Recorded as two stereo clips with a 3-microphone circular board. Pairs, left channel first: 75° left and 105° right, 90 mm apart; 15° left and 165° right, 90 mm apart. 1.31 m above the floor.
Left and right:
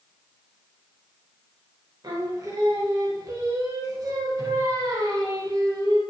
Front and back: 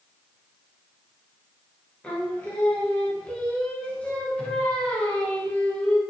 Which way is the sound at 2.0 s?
60° right.